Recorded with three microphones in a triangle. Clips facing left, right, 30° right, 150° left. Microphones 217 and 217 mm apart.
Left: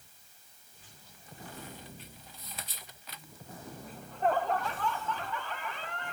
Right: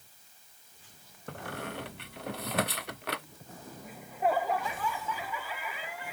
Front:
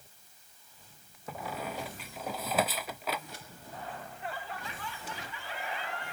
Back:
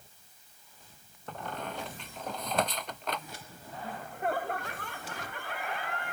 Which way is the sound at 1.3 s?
115° right.